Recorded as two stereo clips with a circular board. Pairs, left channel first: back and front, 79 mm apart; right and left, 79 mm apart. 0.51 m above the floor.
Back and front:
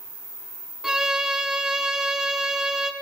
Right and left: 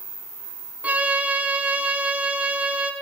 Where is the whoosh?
No whoosh in this recording.